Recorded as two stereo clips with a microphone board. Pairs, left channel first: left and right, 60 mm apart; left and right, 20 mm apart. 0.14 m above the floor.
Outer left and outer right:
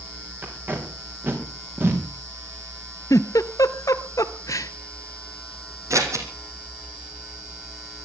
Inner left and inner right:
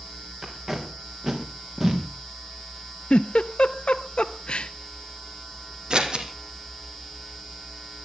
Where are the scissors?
55° right (ahead or behind), 3 m.